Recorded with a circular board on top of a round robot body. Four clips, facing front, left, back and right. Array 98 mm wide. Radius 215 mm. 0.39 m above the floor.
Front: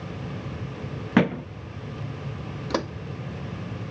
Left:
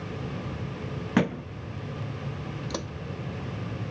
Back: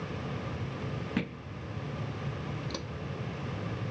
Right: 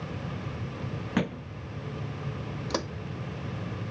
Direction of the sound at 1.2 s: 15° left.